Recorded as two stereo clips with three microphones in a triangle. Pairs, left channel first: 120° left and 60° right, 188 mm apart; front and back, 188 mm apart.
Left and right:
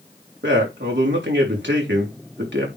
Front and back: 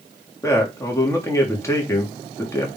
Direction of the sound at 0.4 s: 75° right.